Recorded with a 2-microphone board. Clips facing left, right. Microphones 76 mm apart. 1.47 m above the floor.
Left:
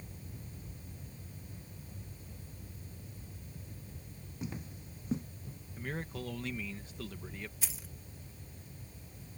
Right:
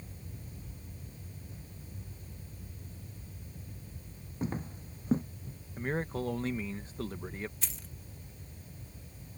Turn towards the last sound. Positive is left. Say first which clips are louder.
# even
turn(degrees=5)  # may be behind; listen again after turning